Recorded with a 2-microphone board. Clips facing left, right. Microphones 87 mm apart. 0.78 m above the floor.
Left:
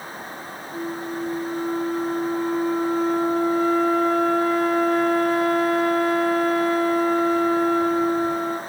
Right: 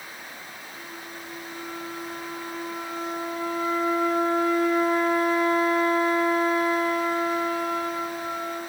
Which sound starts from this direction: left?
A flute, at 0.7 s.